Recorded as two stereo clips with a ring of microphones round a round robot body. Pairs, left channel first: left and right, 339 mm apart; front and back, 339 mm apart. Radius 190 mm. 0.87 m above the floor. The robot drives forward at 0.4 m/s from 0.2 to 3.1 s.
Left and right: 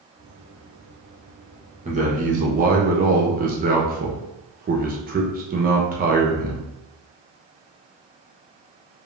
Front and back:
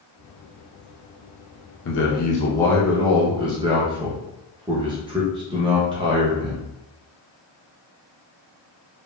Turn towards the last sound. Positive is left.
turn(degrees=-120)